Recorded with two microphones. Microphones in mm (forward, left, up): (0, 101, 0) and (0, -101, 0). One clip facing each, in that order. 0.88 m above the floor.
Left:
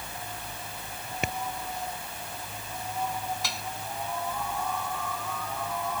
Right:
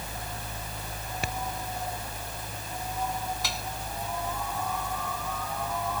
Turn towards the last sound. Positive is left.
turn(degrees=0)  # may be behind; listen again after turning